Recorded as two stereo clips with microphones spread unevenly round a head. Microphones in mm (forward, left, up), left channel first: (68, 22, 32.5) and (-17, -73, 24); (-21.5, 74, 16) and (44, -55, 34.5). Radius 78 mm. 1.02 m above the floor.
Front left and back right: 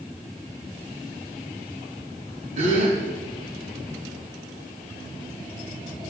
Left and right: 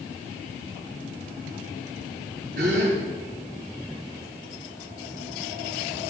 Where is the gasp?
105° right, 4.5 m.